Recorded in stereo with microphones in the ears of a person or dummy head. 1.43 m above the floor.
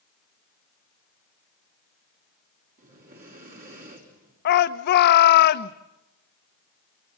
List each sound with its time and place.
2.8 s breathing: 45° right (ahead or behind), 5 m
4.5 s a shout: 55° left (ahead or behind), 1.2 m